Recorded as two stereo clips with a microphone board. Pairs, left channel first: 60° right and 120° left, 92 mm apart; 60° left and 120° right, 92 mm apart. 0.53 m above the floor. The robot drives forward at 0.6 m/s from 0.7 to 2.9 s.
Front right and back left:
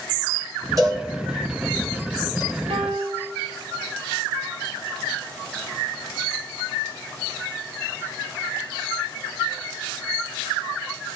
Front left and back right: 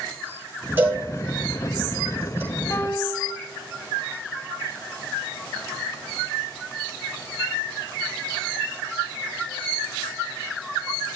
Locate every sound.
0.8 s a cowbell: 170° left, 4 m; by 2.4 s 175° left, 5 m
2.7 s a piano: 115° left, 0.9 m; by 3.3 s 120° left, 1.0 m